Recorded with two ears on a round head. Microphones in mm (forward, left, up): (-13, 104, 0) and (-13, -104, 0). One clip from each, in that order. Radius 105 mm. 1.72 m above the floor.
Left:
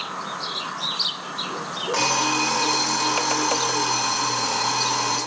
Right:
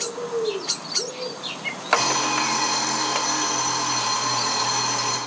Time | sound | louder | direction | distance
1.9 | an alarm clock | right 1 dB | 15° left (ahead or behind) | 2 m